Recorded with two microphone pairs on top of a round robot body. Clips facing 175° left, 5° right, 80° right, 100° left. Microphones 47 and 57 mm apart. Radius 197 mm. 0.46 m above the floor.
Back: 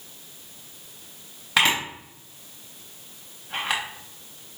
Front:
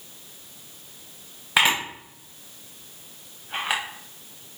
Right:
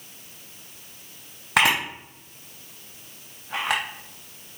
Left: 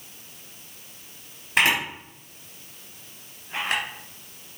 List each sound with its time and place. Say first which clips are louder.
1.6 s a camera shutter: front 1 dB, right 1 dB; 85° right, 0.5 m